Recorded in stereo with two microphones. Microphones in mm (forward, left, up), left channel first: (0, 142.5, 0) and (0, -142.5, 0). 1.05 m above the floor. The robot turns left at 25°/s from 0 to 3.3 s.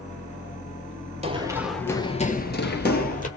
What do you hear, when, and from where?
1.2 s running footsteps: 20° right (ahead or behind), 1.6 m; by 3.3 s 25° left (ahead or behind), 1.6 m